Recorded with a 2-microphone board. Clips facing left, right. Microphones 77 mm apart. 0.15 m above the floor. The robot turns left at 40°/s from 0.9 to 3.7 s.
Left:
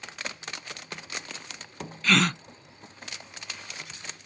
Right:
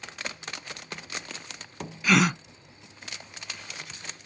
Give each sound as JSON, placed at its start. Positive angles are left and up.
{"t": 2.0, "sound": "a gasp", "side_deg": -15}